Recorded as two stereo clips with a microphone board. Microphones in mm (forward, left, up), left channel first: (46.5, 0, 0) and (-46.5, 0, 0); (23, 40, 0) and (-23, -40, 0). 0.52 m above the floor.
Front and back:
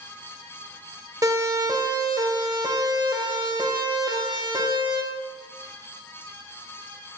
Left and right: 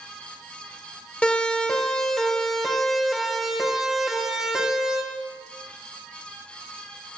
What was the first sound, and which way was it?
A siren, 135° left.